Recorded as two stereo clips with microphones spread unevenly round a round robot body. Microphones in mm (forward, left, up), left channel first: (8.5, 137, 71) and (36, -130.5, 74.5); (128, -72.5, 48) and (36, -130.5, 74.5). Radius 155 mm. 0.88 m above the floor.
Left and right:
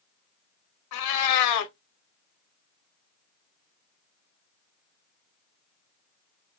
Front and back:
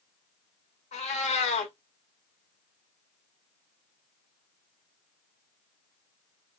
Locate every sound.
0.9 s a cat meowing: 70° left, 0.6 m